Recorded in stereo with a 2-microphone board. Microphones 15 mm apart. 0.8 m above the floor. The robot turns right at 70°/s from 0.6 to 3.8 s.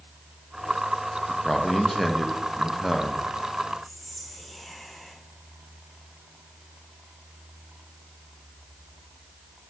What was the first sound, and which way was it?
A man speaking, 140° left.